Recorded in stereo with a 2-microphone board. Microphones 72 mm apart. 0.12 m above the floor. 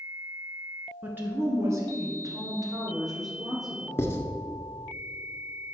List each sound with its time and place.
1.0 s a woman speaking: 25° right (ahead or behind), 1.3 m; by 4.0 s 60° right (ahead or behind), 3 m
4.0 s writing: 35° left (ahead or behind), 1.1 m